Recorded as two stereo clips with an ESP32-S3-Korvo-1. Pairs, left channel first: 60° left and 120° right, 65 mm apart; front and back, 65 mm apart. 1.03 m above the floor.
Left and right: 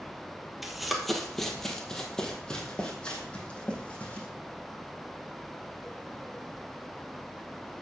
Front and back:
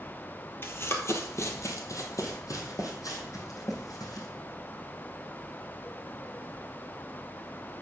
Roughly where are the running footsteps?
Ahead right.